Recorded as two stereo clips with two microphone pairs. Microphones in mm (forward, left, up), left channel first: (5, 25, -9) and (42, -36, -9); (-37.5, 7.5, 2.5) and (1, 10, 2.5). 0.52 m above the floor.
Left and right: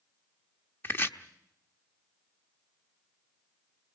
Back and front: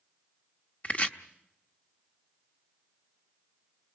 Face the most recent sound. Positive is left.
turn(degrees=160)